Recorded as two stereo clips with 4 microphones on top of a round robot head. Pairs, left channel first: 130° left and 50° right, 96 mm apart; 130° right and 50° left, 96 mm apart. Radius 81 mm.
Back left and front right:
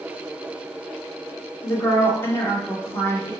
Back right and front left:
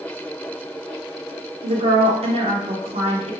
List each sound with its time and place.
1.6 s a woman speaking: 65° left, 1.1 m